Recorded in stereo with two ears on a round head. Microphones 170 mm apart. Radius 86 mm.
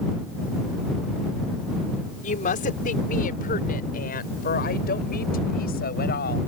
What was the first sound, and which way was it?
A woman speaking, 45° left (ahead or behind).